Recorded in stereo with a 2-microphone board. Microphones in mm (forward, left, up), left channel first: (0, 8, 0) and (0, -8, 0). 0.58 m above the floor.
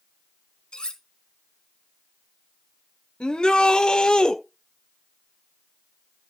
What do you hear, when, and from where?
0.7 s cutlery clinking: 70° left (ahead or behind), 1.7 m
3.2 s a shout: 55° left (ahead or behind), 1.4 m